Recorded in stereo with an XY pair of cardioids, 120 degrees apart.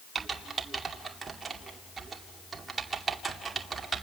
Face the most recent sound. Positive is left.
turn(degrees=-25)